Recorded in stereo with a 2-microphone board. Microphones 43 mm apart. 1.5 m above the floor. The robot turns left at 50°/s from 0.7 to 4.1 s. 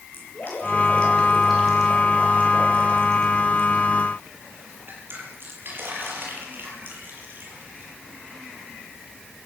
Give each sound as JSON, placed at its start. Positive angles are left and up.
{"t": 0.1, "sound": "dripping", "side_deg": 45, "distance_m": 7.0}